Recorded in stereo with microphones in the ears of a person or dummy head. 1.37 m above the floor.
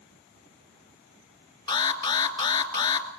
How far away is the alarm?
About 3 m.